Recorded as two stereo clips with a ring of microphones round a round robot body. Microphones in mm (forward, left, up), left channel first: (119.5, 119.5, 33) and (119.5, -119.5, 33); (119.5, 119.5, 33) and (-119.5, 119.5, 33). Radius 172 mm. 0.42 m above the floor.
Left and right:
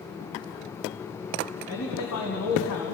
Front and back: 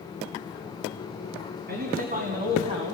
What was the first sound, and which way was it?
A man speaking, 135° left.